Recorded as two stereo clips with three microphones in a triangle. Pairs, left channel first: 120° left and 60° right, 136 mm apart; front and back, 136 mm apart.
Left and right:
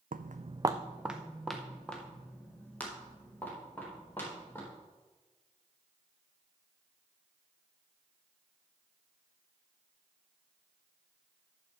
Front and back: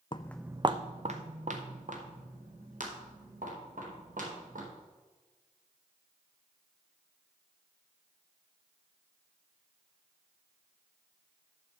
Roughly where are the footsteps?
Ahead right.